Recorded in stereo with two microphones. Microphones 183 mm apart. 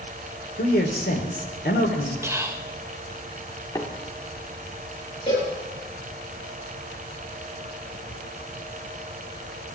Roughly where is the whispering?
Centre.